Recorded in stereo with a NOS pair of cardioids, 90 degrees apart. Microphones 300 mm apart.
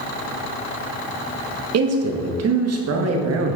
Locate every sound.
1.7 s a man speaking: 60° right, 1.5 m